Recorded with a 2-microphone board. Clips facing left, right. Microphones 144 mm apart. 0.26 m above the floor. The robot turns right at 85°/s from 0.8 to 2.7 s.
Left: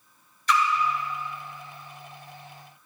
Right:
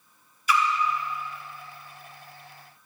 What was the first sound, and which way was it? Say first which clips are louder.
A splash: left 1 dB; 10° right (ahead or behind).